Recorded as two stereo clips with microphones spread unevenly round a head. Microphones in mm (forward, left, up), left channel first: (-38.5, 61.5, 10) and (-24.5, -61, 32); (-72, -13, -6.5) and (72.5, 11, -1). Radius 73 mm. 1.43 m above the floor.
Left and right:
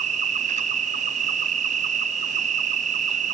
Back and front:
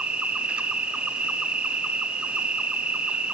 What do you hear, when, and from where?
0.0 s an insect: 75° right, 0.8 m